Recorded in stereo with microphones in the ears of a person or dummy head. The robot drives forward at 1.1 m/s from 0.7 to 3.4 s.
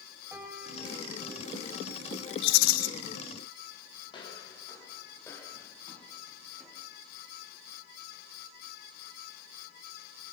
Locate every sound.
0.3 s a piano: 10° right (ahead or behind), 5 m; by 1.8 s 15° right (ahead or behind), 3.5 m
2.4 s a rattle: 65° left (ahead or behind), 0.8 m; by 2.9 s 50° left (ahead or behind), 0.9 m
4.1 s footsteps: 30° left (ahead or behind), 4.5 m; by 6.9 s centre (ahead or behind), 6 m